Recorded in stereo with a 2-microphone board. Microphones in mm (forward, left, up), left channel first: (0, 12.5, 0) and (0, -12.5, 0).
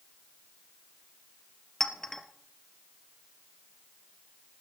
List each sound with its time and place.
1.8 s a clink: 20° left (ahead or behind), 1.7 m